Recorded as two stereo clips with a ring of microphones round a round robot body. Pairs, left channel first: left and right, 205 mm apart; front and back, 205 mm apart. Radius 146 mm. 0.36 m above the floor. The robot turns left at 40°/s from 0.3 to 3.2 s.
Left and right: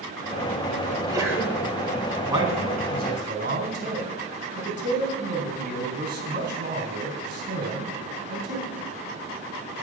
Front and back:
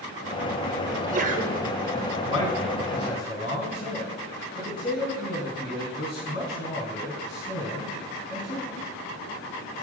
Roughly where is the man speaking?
Ahead.